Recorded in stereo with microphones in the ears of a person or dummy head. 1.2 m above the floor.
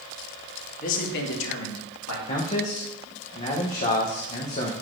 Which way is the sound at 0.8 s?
40° left (ahead or behind).